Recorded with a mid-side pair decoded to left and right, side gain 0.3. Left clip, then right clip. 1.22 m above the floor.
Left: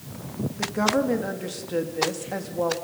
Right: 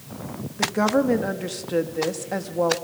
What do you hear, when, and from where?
0.6 s a woman speaking: 35° right, 2.5 m